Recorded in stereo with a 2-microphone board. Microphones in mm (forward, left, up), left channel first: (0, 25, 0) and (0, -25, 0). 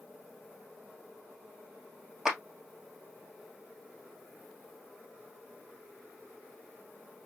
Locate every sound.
2.2 s a clap: 10° right (ahead or behind), 1.7 m